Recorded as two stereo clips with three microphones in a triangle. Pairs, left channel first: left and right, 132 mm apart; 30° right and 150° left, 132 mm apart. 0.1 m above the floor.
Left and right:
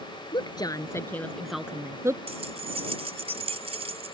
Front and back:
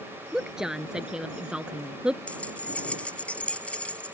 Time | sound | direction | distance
0.3 | a woman speaking | 65° left | ?
2.3 | keys jangling | 110° right | ?